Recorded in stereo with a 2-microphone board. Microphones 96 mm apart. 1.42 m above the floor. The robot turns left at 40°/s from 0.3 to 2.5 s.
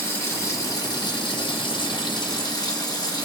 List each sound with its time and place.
0.0 s running water: 145° left, 0.9 m; by 3.2 s 55° left, 0.9 m